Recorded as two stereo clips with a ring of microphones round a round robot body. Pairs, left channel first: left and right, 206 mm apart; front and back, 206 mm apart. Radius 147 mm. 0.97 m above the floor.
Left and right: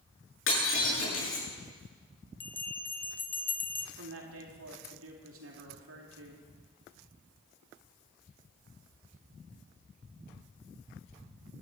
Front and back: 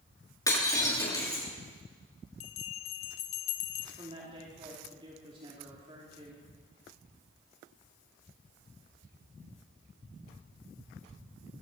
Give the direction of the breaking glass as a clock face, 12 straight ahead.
10 o'clock.